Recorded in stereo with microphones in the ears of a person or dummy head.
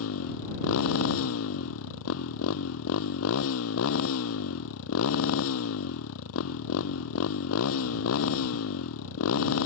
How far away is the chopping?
I don't hear chopping.